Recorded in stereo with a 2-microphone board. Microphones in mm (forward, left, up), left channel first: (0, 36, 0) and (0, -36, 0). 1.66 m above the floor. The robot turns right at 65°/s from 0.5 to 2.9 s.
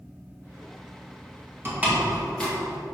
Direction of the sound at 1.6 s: 30° right (ahead or behind).